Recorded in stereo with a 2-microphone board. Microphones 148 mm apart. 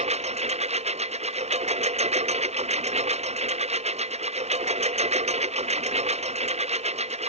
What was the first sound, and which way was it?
A lawn mower, 45° right (ahead or behind).